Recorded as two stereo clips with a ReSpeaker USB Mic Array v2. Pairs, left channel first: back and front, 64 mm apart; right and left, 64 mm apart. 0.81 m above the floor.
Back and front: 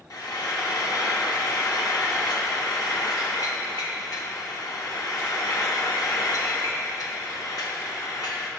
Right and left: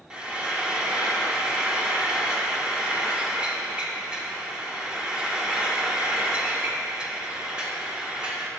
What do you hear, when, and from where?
0.1 s frying: 165° left, 1.0 m